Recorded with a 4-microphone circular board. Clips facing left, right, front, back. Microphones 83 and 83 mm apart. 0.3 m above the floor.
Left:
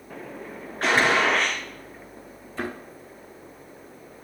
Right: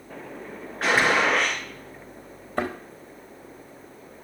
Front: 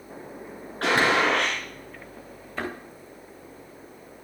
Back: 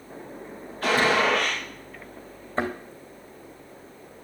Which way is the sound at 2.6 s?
120° right.